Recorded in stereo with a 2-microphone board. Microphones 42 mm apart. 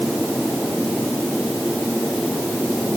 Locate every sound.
Only background noise.